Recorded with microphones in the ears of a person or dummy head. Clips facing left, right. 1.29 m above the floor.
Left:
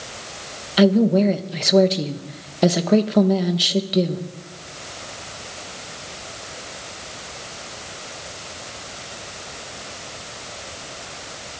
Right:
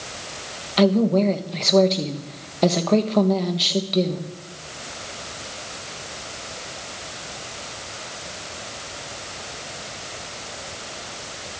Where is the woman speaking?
10° left (ahead or behind), 1.3 m.